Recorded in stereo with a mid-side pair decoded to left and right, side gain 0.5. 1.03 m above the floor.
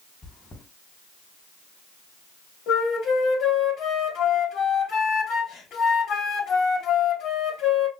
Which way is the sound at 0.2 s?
35° left.